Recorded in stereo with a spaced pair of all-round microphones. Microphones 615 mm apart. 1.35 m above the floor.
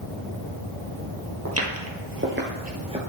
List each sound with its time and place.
1.4 s footsteps: 25° right (ahead or behind), 1.7 m; by 3.0 s 10° right (ahead or behind), 1.4 m